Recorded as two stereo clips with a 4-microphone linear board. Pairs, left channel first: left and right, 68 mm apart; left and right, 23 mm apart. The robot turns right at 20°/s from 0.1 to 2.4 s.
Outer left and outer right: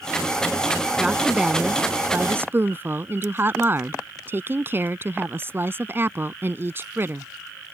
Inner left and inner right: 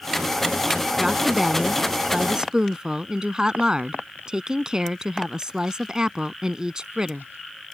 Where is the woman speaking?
5° right (ahead or behind); by 7.3 s 35° right (ahead or behind).